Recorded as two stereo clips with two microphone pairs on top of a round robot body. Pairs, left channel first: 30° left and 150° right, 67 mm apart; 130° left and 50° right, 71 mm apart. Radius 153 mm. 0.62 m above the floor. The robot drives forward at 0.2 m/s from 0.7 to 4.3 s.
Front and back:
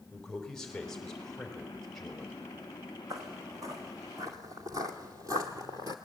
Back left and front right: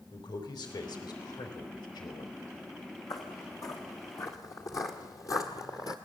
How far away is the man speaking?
About 3.5 m.